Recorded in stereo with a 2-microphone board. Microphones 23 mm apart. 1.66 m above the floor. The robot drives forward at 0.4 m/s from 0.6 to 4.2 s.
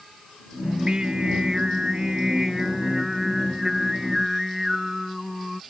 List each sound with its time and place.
0.6 s singing: 40° right (ahead or behind); by 5.6 s 15° right (ahead or behind)